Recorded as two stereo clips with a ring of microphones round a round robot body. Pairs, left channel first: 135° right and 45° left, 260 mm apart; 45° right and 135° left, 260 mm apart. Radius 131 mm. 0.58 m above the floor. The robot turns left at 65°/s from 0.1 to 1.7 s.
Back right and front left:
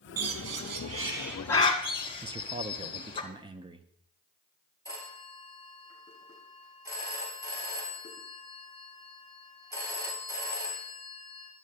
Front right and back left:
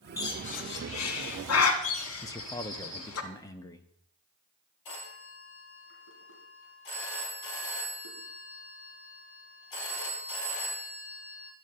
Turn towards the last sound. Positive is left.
turn(degrees=-30)